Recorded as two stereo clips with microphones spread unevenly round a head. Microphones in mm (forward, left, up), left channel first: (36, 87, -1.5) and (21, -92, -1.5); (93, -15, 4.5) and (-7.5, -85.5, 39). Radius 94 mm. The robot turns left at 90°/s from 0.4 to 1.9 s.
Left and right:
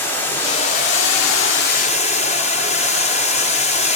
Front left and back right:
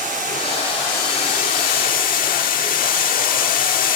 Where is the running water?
165° left, 0.9 m; by 4.0 s 30° left, 0.9 m.